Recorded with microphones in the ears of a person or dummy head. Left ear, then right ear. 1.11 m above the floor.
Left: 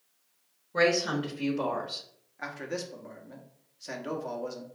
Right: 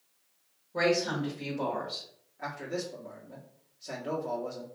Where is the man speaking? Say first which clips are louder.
Even; 45° left (ahead or behind), 1.0 m.